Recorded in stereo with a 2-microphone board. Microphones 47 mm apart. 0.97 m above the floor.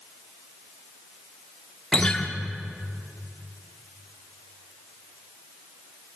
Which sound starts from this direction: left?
A guitar, at 1.9 s.